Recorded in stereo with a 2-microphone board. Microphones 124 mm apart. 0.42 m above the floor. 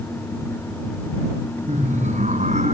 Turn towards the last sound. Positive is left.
turn(degrees=-75)  # may be behind; listen again after turning